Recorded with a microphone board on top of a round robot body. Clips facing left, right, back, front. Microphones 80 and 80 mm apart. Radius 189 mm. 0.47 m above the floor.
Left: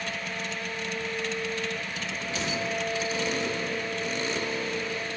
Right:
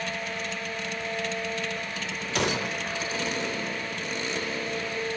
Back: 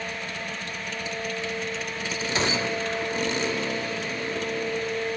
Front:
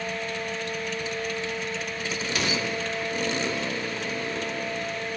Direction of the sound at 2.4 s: 120° right.